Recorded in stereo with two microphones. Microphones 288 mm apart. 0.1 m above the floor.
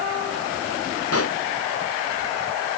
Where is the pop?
55° left (ahead or behind).